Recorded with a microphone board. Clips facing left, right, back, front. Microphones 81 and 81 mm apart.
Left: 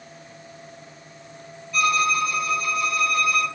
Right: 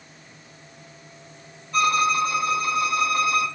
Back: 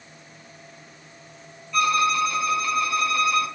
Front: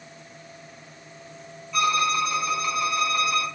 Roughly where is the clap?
No clap in this recording.